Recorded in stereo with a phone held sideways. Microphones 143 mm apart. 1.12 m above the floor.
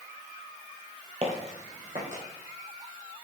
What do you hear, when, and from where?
1.2 s footsteps: 45° right (ahead or behind), 1.7 m; by 2.2 s 55° right (ahead or behind), 2.5 m